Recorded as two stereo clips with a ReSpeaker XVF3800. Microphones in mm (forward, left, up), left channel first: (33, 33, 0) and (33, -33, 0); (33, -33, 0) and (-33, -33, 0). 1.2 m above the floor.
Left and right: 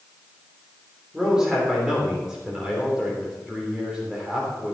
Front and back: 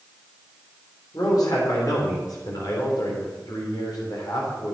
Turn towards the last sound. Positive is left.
turn(degrees=-10)